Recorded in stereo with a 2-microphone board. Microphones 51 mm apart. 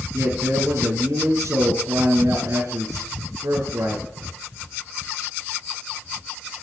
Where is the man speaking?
65° right (ahead or behind), 3 m.